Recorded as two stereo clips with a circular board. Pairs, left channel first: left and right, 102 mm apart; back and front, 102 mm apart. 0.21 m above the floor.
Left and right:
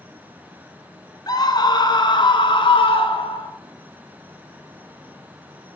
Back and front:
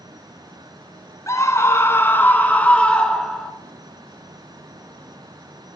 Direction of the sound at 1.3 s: 130° left.